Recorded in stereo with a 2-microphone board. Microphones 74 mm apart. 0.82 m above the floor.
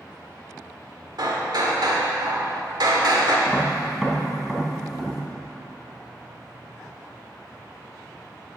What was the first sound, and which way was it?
Hammering, 65° right (ahead or behind).